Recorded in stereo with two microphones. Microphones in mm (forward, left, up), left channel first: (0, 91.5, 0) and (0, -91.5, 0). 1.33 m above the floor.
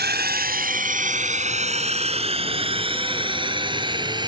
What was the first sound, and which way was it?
A drone, 60° right (ahead or behind).